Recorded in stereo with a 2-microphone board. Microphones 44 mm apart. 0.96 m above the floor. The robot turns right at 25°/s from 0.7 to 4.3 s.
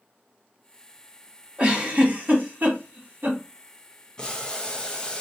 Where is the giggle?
25° right (ahead or behind), 1.0 m; by 3.4 s 45° right (ahead or behind), 1.0 m.